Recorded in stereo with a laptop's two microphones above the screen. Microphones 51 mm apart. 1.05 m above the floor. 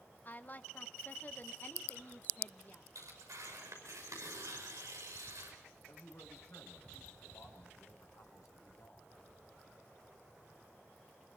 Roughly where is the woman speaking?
Left.